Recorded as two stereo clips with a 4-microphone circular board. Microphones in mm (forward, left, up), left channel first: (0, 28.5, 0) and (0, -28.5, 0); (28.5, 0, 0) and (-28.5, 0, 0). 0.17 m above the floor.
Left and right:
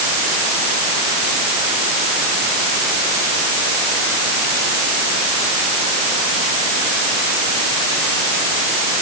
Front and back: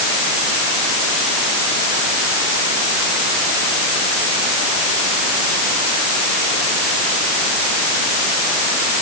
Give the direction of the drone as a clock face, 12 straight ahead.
No drone in this recording.